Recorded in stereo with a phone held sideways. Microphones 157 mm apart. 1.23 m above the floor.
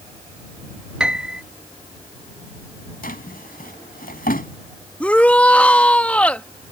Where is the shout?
10° left (ahead or behind).